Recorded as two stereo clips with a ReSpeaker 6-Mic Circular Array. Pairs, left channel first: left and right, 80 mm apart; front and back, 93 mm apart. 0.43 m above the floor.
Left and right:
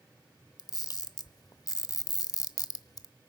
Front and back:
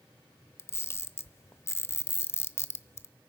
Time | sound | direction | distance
0.6 | a camera shutter | 60° left | 0.8 m